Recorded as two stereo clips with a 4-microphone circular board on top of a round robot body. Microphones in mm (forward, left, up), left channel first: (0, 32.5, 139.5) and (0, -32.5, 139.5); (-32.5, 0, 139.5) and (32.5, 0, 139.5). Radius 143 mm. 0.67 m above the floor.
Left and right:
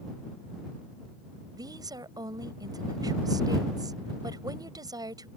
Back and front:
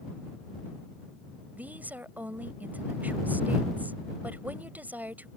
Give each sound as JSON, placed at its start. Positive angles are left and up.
{"t": 1.6, "sound": "a woman speaking", "azimuth_deg": -65}